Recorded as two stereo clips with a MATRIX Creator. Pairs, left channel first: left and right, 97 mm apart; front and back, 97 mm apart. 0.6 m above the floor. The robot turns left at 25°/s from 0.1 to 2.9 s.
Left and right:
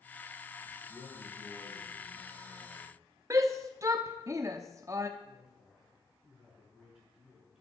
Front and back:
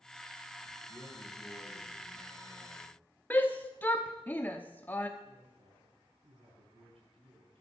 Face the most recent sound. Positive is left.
turn(degrees=-175)